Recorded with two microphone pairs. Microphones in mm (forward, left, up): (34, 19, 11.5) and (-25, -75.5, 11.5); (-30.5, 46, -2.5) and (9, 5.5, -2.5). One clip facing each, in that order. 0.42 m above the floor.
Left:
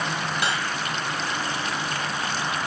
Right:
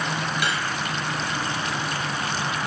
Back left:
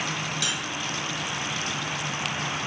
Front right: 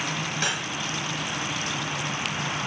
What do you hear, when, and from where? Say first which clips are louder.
0.4 s cutlery clinking: left 2 dB, front right 2 dB; straight ahead, 1.6 m